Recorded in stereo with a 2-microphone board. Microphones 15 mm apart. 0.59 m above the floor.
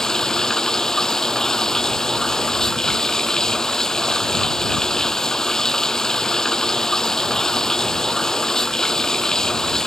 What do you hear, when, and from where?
0.0 s running water: 45° left (ahead or behind)